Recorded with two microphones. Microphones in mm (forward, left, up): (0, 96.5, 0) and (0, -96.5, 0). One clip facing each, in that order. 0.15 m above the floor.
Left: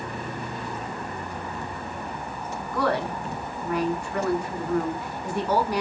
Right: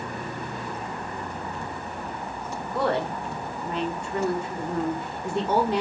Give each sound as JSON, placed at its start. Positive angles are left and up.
{"t": 2.6, "sound": "a woman speaking", "side_deg": -25, "distance_m": 1.1}